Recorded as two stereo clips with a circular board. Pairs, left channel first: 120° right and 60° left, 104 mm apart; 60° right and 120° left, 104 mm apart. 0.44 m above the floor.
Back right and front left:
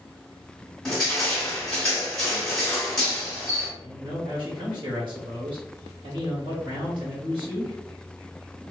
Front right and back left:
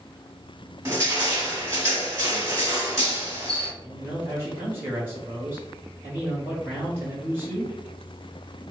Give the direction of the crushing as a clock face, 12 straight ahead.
7 o'clock.